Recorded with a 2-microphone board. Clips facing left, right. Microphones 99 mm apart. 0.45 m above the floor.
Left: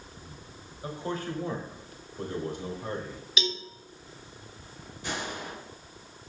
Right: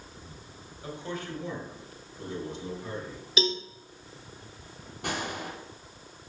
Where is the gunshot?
65° right (ahead or behind), 2.5 m.